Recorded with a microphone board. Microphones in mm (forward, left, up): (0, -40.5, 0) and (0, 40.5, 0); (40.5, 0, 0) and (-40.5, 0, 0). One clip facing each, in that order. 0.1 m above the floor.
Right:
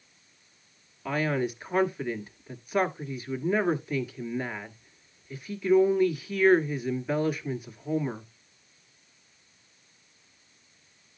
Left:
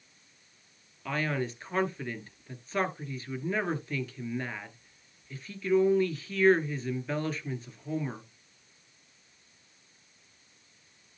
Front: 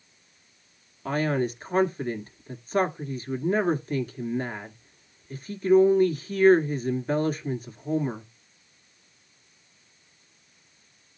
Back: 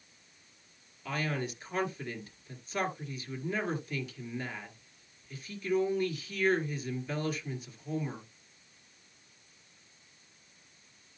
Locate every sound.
1.1 s a man speaking: 20° right, 1.5 m